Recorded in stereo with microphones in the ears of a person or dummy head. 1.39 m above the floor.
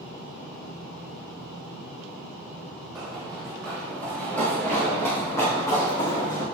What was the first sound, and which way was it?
Running footsteps, 5° right (ahead or behind).